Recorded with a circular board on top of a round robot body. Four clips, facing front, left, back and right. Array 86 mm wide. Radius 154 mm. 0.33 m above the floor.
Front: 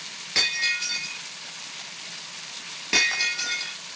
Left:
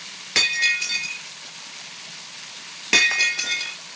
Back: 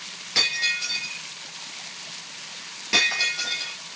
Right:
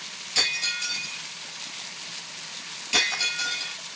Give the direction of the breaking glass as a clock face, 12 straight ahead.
9 o'clock.